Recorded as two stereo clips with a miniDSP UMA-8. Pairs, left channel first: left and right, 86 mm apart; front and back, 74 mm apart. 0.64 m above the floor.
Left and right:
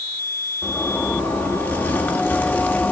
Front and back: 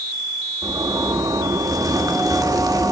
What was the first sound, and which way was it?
A zipper, 155° left.